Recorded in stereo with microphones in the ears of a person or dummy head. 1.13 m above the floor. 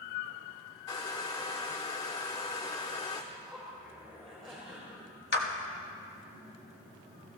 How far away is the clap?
About 1.4 m.